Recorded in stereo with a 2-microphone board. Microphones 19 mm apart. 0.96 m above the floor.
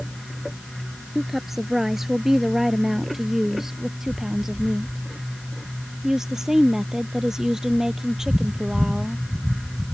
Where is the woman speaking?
15° right (ahead or behind); by 9.2 s 30° right (ahead or behind).